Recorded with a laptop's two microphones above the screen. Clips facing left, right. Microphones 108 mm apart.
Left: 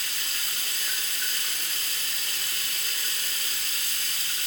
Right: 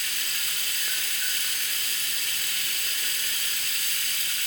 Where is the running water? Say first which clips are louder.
Even; 30° left (ahead or behind), 0.9 m.